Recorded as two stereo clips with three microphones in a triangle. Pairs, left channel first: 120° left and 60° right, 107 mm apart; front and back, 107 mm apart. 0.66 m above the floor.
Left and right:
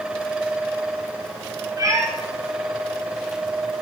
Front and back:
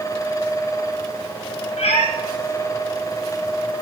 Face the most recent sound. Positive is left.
turn(degrees=0)